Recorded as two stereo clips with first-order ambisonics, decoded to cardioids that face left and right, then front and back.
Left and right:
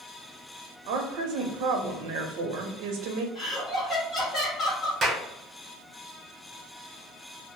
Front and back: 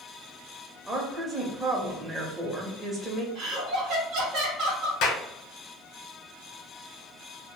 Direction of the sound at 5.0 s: 25° right.